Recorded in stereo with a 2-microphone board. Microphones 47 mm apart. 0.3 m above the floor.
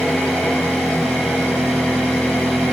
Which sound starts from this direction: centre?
An engine running, at 0.0 s.